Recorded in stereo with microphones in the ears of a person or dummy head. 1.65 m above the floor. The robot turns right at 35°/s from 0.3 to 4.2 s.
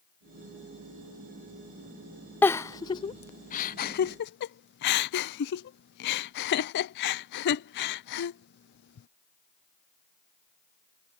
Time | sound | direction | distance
2.4 | a giggle | 10° left (ahead or behind) | ?